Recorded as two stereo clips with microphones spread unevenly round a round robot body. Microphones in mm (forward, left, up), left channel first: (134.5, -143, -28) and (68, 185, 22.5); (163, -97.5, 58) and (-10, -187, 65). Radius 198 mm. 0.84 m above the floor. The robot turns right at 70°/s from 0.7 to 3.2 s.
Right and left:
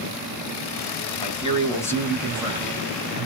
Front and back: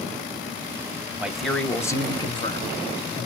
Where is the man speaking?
70° right, 0.9 m; by 3.3 s 70° left, 0.9 m.